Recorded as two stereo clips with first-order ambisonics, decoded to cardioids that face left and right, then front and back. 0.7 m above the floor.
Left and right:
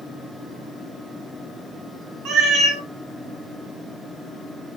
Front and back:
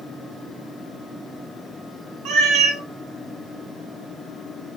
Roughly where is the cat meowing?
Behind right.